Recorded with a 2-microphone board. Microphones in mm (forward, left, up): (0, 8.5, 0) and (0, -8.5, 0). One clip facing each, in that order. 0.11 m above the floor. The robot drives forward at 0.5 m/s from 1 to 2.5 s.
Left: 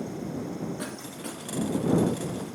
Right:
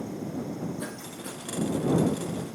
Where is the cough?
55° left (ahead or behind), 3 m.